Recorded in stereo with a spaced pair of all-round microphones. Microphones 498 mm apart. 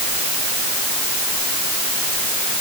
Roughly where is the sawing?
No sawing in this recording.